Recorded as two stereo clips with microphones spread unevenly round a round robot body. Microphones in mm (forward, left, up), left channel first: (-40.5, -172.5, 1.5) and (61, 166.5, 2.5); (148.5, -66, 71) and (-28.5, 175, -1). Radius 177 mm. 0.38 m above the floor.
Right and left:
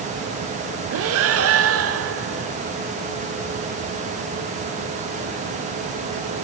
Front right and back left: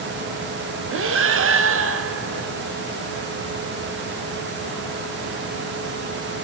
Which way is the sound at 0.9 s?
115° left.